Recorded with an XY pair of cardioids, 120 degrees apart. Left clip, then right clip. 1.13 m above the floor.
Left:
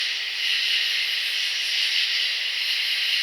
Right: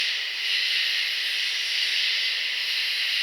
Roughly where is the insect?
Ahead left.